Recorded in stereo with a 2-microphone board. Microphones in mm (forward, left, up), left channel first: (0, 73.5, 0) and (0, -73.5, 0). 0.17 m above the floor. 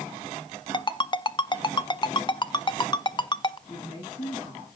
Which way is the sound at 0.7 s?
30° left (ahead or behind).